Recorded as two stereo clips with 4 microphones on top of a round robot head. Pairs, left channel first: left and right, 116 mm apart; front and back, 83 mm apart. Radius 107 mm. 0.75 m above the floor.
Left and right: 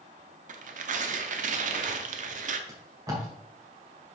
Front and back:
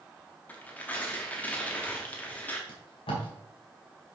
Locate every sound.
0.5 s tearing paper: 75° right, 0.7 m
2.7 s tape being pulled: 25° right, 2 m